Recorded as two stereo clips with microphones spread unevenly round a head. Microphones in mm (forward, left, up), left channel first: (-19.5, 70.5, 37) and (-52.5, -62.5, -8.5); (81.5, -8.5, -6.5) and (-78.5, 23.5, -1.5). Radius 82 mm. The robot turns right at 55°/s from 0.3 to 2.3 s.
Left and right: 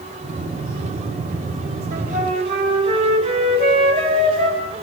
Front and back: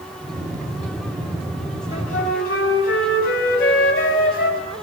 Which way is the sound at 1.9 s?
65° right.